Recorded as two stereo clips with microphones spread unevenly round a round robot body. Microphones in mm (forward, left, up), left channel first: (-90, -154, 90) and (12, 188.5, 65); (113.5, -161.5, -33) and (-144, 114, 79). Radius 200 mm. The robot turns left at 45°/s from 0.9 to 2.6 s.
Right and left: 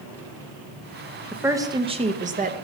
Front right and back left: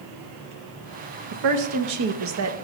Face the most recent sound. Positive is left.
turn(degrees=90)